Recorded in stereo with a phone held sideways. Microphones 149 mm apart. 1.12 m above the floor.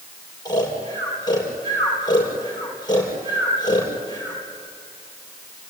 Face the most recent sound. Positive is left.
turn(degrees=30)  # may be behind; listen again after turning